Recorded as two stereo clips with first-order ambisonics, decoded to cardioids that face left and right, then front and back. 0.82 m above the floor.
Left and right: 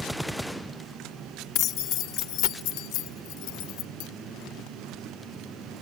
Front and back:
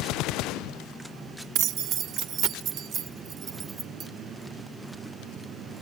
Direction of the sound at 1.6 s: 135° left.